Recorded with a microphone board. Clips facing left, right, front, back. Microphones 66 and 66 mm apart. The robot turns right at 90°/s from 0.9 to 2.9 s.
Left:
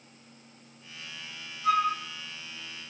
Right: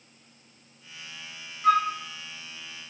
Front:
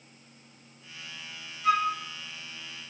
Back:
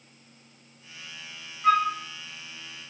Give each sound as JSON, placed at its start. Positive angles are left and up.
{"t": 1.6, "sound": "a flute", "azimuth_deg": -130, "distance_m": 2.0}